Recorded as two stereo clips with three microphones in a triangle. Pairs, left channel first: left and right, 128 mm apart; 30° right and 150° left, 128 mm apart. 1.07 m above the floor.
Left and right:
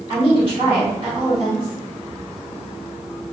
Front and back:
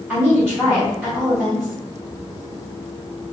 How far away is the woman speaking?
About 1.6 m.